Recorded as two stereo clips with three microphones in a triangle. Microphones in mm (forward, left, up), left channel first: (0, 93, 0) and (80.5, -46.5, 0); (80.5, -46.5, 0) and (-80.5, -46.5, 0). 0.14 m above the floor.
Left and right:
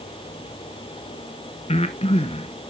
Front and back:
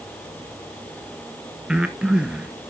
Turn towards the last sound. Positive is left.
turn(degrees=100)